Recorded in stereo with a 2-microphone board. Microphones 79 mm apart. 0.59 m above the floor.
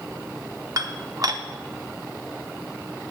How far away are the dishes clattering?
About 0.8 m.